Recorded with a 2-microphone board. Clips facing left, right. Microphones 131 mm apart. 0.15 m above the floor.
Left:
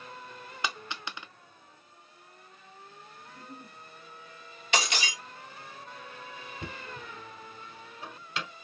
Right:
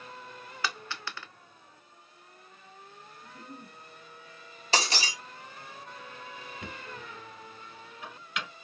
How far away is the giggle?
About 1.8 m.